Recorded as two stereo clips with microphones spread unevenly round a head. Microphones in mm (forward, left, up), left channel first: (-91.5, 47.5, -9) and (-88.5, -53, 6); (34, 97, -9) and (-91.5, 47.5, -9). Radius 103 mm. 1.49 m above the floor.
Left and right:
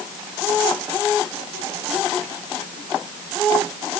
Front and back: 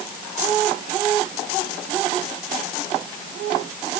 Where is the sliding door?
I don't hear a sliding door.